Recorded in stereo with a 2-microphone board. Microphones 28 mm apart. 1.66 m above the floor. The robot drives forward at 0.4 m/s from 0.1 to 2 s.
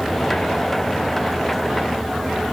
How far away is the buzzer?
No buzzer in this recording.